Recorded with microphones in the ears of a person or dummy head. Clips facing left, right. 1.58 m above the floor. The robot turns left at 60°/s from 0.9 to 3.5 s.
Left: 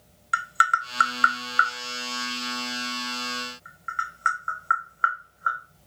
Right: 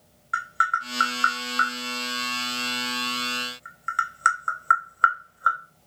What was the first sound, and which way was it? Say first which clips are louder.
Tapping: left 2 dB; 45° left (ahead or behind).